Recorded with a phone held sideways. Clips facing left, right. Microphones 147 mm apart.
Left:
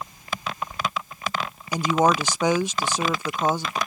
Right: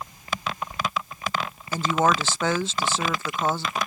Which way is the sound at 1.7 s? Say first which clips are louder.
Left 2 dB; 15° left (ahead or behind).